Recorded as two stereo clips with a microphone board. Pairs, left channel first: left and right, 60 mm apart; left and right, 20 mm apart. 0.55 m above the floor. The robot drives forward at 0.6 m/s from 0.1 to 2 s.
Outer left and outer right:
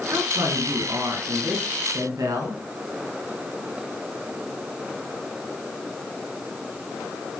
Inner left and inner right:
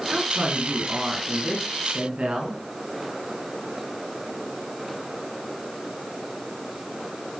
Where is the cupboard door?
No cupboard door in this recording.